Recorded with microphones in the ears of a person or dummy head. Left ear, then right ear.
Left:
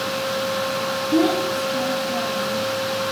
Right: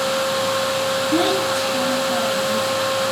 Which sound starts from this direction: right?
A child speaking, at 1.1 s.